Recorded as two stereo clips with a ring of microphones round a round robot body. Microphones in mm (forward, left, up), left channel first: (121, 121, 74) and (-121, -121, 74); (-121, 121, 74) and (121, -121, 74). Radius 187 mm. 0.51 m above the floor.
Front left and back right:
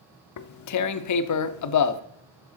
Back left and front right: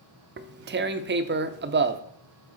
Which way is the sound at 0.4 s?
10° left.